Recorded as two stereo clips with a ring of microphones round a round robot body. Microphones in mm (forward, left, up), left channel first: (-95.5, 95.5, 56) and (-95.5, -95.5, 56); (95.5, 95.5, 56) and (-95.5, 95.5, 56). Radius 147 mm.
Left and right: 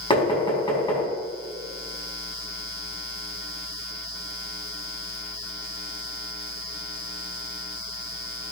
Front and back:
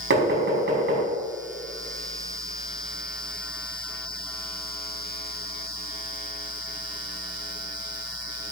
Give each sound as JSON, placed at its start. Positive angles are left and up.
{"t": 0.1, "sound": "knocking", "azimuth_deg": 155, "distance_m": 4.5}